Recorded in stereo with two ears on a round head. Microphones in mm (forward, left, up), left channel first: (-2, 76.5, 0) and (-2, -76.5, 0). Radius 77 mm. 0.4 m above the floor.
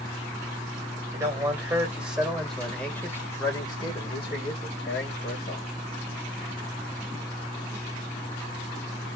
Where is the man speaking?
20° right (ahead or behind), 2 m; by 5.7 s 50° left (ahead or behind), 2 m.